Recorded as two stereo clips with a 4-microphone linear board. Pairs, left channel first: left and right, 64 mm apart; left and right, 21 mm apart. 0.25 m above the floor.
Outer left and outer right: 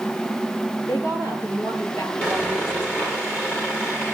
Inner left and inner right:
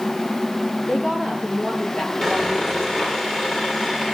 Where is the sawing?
30° left (ahead or behind), 9 m.